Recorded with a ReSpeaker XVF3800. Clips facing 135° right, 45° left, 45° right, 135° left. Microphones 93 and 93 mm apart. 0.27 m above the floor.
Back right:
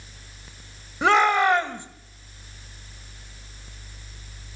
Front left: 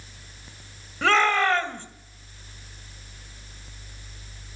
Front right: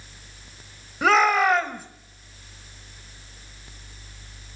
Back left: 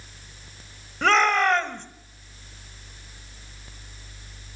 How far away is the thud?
I don't hear a thud.